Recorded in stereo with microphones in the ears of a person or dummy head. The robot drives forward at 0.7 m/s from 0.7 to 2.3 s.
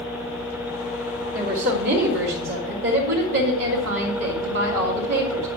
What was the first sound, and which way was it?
A woman speaking, 60° right (ahead or behind).